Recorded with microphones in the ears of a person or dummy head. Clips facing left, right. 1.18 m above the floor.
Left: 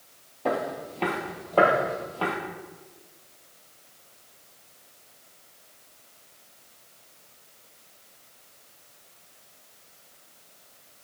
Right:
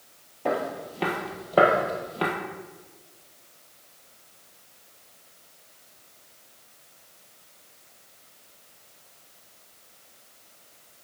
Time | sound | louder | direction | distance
0.5 | footsteps | even | centre (ahead or behind) | 1.5 m